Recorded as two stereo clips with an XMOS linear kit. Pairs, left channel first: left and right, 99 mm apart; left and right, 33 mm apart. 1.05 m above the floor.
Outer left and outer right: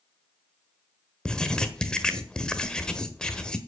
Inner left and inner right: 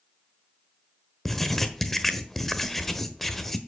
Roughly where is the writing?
Centre.